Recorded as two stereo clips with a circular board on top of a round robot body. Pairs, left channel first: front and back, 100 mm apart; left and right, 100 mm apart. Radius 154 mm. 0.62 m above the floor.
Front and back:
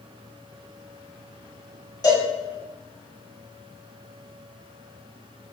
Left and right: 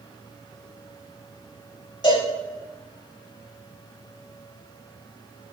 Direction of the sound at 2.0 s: 50° left.